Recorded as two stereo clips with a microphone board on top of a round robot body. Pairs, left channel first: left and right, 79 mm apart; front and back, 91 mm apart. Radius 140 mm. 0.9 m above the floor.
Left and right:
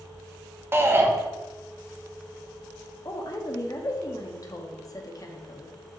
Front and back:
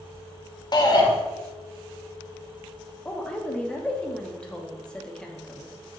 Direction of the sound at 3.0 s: 80° left.